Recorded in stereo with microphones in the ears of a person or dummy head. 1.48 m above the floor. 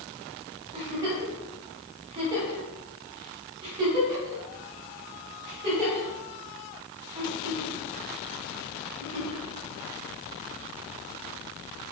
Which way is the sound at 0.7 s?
30° right (ahead or behind).